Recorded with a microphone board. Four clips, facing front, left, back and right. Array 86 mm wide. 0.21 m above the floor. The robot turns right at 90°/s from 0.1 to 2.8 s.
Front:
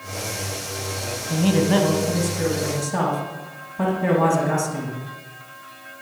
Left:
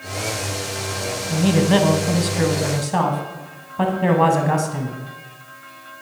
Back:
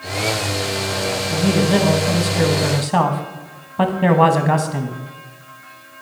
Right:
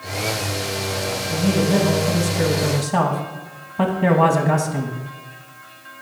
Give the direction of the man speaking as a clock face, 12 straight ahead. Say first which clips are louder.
Left 2 dB, back 1 dB; 11 o'clock.